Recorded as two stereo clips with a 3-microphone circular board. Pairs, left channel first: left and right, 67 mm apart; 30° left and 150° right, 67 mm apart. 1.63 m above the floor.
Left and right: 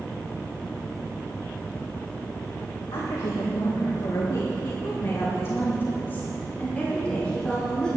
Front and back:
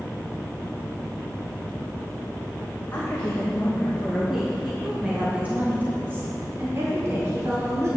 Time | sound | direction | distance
2.9 | a woman speaking | 95° left | 1.9 m